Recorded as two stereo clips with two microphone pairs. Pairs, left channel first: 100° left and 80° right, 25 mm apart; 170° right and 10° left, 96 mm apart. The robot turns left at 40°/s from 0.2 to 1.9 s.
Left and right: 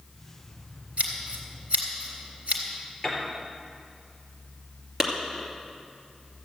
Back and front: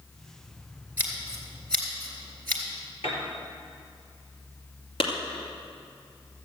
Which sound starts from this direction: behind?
A piano, at 3.0 s.